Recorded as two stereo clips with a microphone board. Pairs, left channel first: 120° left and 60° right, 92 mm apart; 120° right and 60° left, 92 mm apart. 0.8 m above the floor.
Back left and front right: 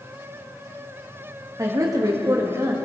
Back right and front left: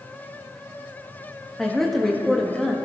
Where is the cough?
No cough in this recording.